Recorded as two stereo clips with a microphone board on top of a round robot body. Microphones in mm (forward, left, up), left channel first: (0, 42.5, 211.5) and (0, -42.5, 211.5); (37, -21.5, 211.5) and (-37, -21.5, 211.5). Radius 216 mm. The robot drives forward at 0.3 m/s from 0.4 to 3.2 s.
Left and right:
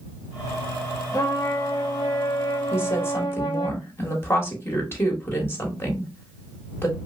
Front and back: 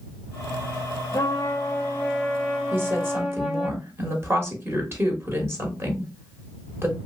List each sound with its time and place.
1.1 s a trumpet: 45° left, 1.0 m; by 3.7 s 95° left, 0.8 m
2.7 s a woman speaking: 135° left, 1.4 m; by 7.0 s 140° left, 1.5 m